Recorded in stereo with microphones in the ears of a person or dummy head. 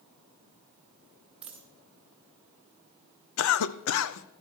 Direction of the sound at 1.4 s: 5° right (ahead or behind).